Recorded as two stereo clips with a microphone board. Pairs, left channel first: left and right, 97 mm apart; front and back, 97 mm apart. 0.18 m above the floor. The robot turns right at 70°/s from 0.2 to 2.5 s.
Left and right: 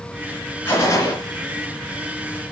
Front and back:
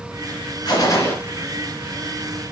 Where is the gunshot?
25° left, 2.5 m; by 1.1 s 60° left, 2.5 m.